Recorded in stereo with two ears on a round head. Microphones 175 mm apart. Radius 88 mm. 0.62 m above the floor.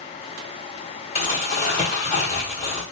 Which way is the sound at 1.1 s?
35° left (ahead or behind).